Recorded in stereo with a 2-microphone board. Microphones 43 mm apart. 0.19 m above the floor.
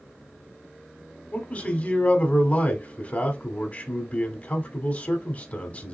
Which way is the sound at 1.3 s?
30° left (ahead or behind).